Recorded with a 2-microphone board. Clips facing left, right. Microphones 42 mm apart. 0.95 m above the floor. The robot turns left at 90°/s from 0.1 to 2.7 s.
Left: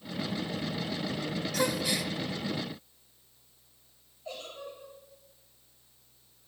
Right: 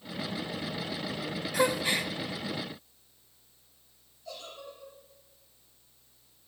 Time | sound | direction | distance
1.5 | a gasp | 35° right | 0.6 m
4.2 | a giggle | 35° left (ahead or behind) | 4 m